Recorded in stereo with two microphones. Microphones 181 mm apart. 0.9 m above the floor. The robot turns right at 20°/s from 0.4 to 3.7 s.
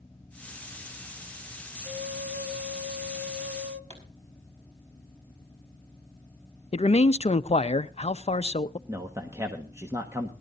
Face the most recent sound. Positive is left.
turn(degrees=-15)  # may be behind; listen again after turning